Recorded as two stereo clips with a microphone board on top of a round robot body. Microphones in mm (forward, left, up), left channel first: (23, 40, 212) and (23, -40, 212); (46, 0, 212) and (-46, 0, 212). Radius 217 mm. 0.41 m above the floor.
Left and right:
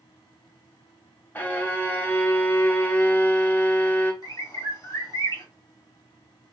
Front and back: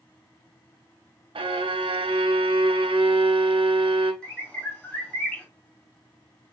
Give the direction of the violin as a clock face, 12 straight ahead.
7 o'clock.